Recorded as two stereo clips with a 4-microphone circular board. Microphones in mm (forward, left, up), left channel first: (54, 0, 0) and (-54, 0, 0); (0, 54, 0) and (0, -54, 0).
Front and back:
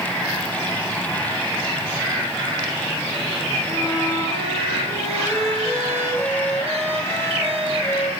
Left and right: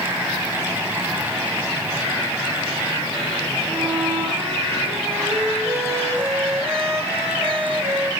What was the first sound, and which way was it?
A violin, 175° right.